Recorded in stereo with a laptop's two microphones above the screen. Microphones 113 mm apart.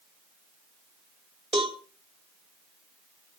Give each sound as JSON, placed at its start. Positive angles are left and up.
{"t": 1.5, "sound": "a cowbell", "side_deg": -55, "distance_m": 2.0}